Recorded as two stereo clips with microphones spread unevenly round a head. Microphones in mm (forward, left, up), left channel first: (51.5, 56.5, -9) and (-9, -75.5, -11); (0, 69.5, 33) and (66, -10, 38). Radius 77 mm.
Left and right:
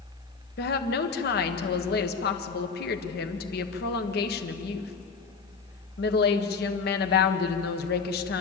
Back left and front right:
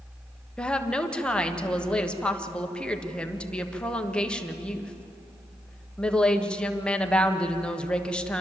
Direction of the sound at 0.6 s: 50° left.